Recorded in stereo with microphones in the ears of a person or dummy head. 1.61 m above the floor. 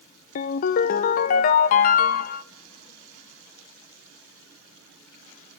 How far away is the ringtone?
About 0.6 m.